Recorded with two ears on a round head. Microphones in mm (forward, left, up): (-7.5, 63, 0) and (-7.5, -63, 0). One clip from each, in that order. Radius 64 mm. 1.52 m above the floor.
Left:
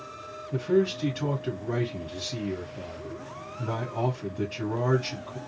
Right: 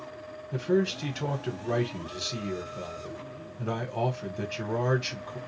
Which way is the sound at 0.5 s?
25° right (ahead or behind).